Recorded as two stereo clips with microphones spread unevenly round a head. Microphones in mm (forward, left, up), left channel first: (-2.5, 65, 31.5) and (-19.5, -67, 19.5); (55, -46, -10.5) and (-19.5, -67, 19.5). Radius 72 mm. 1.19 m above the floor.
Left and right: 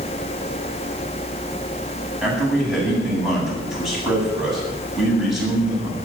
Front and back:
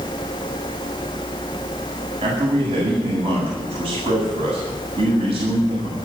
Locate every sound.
2.2 s a man speaking: 175° left, 8.5 m